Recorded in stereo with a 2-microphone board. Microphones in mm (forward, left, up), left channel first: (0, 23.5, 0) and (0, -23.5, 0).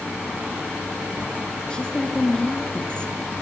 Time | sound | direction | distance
1.7 | a woman speaking | 20° left (ahead or behind) | 1.9 m